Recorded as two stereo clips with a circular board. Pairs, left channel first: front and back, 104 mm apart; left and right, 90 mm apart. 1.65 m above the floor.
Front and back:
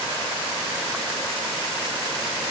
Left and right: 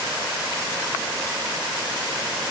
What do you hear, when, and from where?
Only background noise.